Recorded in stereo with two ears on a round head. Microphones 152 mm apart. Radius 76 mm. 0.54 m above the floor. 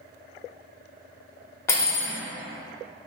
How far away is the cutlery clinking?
About 0.5 m.